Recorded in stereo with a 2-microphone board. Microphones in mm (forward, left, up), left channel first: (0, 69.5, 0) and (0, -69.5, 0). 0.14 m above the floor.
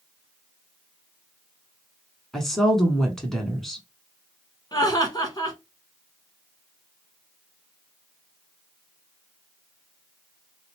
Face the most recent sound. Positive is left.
turn(degrees=30)  # may be behind; listen again after turning